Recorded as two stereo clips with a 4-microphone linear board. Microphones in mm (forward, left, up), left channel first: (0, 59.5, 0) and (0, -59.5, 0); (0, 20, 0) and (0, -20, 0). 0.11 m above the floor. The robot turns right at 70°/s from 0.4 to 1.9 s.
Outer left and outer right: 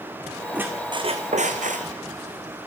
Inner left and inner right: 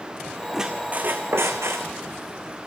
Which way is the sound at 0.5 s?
170° right.